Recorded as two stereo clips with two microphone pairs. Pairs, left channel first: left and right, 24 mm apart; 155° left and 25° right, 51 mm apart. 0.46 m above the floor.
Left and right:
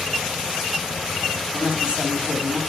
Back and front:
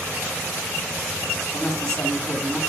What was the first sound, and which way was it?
A woman speaking, 130° right.